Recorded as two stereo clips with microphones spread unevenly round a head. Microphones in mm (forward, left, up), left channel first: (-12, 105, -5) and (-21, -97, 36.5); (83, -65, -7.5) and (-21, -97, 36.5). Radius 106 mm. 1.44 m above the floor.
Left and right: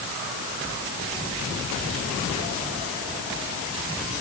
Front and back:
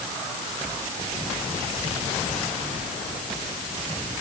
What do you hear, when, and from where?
Only background noise.